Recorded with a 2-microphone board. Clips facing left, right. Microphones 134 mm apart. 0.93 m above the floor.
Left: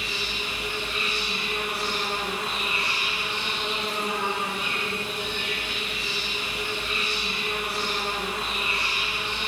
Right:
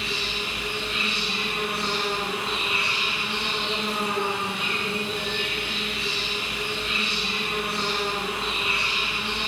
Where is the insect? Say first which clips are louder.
Right 2 dB; 65° right (ahead or behind), 8.5 m.